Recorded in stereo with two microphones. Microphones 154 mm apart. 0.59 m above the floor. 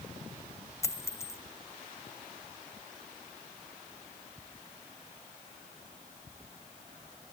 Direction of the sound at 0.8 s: 20° left (ahead or behind).